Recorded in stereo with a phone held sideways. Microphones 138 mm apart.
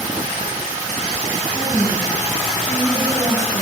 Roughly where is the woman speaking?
Centre.